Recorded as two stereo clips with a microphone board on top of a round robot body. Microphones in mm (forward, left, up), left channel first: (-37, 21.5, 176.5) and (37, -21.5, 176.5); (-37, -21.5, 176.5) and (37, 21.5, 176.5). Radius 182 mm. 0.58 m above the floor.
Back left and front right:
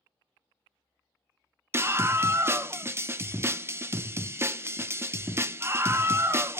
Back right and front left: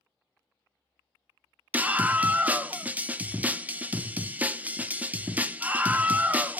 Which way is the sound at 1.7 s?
20° right.